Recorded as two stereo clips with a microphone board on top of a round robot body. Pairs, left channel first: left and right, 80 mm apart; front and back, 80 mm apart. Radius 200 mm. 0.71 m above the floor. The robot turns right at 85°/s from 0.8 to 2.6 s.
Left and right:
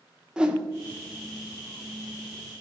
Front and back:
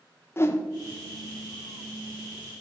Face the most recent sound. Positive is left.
turn(degrees=135)